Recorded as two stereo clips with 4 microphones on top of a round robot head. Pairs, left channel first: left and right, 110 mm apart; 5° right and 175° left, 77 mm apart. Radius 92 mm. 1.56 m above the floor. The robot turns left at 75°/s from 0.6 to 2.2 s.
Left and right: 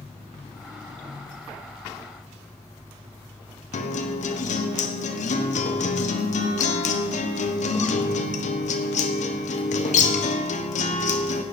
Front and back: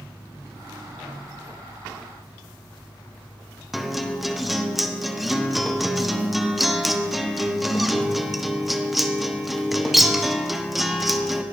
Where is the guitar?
85° left, 1.3 m.